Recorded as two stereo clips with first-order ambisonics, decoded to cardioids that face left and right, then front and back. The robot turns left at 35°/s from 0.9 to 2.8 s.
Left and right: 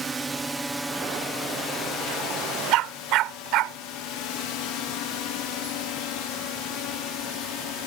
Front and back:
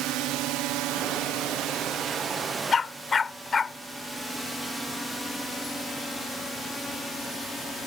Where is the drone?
160° right; by 7.9 s 80° left.